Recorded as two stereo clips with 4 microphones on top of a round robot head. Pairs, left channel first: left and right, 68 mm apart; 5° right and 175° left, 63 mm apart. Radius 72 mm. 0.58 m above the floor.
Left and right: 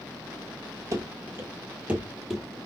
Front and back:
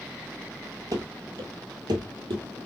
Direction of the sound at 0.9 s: 135° right.